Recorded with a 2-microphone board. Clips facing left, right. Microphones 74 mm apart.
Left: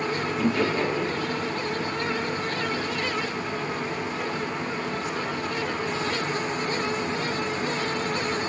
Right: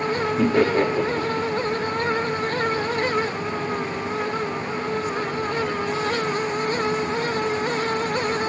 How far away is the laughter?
About 1.6 m.